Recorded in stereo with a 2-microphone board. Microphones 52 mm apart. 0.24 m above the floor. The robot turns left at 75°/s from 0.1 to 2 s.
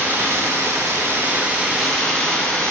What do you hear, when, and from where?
0.0 s running water: 50° right, 0.8 m; by 2.7 s 165° left, 0.8 m